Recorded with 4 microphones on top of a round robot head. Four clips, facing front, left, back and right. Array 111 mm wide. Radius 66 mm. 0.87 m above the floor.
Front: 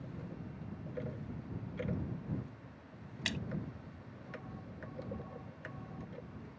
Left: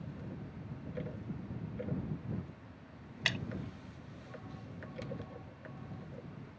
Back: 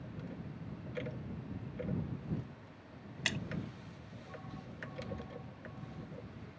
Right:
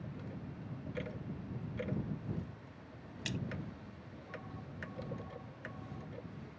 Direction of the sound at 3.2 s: 110° left.